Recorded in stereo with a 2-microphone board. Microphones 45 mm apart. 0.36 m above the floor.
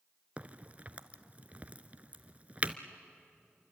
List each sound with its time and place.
0.4 s a crack: 30° right (ahead or behind), 0.9 m